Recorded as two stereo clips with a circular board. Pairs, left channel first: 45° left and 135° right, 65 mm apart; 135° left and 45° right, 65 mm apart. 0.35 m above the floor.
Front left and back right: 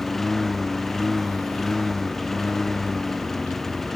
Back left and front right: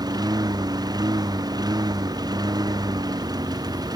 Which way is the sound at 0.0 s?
40° right.